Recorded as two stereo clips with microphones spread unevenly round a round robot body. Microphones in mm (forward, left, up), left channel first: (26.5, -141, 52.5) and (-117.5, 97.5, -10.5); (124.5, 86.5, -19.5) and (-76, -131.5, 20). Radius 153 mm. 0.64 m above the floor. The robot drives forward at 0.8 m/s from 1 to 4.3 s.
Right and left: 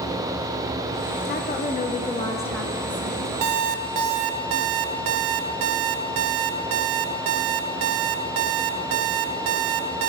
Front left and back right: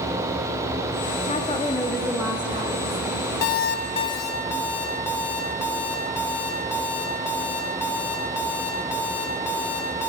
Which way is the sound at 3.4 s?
85° left.